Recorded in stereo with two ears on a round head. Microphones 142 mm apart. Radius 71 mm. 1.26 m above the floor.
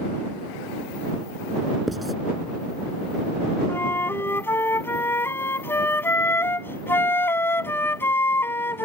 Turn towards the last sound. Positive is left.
turn(degrees=15)  # may be behind; listen again after turning